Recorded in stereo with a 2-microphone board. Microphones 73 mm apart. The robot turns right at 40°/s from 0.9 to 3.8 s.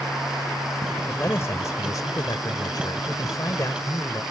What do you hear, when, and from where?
1.1 s a man speaking: 30° left; by 4.2 s 140° left